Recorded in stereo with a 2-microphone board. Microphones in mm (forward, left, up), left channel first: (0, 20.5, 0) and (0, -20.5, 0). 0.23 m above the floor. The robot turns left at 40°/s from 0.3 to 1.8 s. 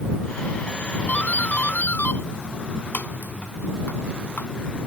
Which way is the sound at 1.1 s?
35° left (ahead or behind).